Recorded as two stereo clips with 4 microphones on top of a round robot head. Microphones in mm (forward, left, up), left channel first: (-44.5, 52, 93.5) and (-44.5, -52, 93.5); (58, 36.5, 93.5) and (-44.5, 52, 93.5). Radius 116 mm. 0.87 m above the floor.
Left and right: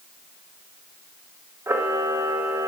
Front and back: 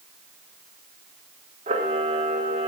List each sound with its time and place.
1.7 s a camera shutter: 155° right, 0.9 m